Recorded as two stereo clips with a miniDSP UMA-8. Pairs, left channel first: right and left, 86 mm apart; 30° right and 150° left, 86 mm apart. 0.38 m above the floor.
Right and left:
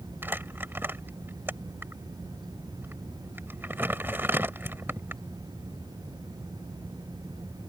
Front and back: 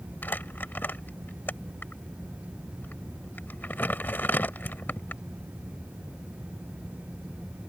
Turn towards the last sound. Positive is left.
turn(degrees=30)